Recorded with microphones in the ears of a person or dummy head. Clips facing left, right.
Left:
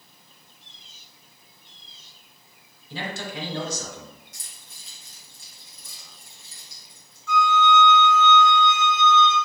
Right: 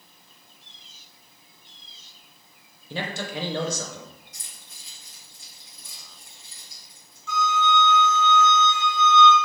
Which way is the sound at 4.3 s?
55° left (ahead or behind).